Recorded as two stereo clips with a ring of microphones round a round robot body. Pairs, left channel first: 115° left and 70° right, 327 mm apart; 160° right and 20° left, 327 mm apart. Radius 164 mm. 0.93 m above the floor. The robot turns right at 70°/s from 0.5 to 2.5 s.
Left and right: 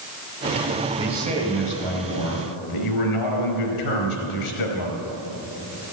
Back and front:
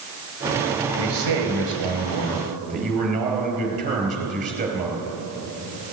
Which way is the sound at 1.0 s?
15° right.